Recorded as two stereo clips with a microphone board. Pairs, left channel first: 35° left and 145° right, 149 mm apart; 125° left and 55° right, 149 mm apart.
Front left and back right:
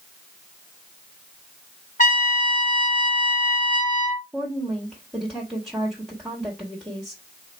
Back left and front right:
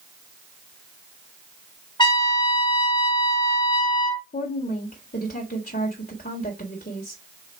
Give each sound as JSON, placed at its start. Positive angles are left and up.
{"t": 2.0, "sound": "a trumpet", "azimuth_deg": 65, "distance_m": 2.0}
{"t": 4.3, "sound": "a woman speaking", "azimuth_deg": 125, "distance_m": 1.7}